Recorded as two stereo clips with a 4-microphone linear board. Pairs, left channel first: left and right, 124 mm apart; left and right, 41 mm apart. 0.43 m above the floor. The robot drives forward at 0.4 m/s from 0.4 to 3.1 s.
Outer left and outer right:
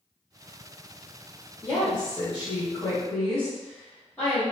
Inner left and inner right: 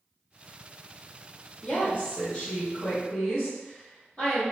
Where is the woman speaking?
20° left (ahead or behind), 1.2 m; by 4.4 s 15° left (ahead or behind), 1.6 m.